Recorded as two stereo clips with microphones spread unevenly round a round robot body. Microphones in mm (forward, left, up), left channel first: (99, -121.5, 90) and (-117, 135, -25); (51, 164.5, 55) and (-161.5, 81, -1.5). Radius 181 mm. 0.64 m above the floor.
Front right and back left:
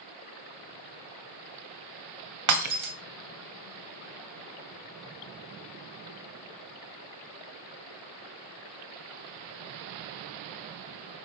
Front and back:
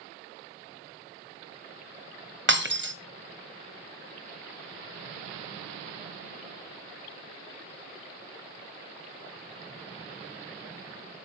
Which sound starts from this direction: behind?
Breaking glass, at 2.5 s.